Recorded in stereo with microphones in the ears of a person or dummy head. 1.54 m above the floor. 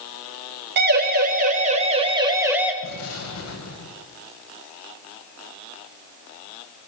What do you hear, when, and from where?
0.8 s a siren: 50° right (ahead or behind), 3.5 m; by 2.7 s 5° right (ahead or behind), 2.5 m
2.8 s an explosion: 75° left (ahead or behind), 7 m